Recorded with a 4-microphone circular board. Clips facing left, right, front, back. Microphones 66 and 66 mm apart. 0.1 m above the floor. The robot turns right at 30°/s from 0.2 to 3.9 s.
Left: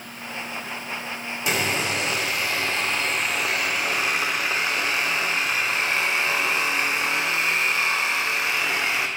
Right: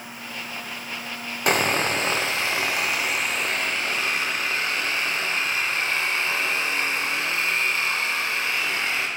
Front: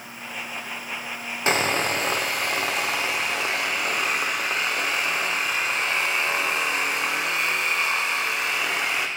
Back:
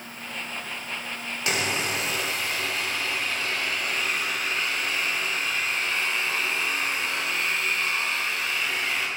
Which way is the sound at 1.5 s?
55° right.